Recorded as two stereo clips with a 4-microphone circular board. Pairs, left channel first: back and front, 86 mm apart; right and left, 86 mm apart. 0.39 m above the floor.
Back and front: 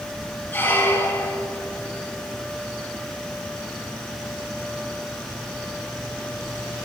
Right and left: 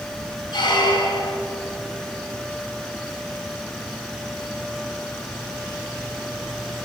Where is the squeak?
115° right, 1.3 m.